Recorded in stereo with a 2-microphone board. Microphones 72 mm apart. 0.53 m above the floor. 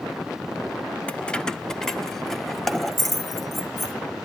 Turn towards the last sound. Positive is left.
turn(degrees=0)  # may be behind; listen again after turning